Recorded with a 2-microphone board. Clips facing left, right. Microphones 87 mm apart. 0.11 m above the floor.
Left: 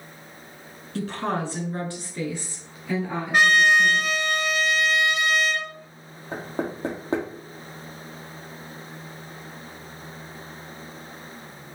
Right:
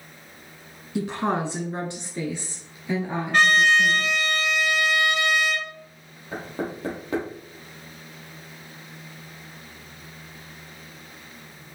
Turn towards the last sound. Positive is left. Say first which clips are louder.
# left 1 dB
turn(degrees=30)  # may be behind; listen again after turning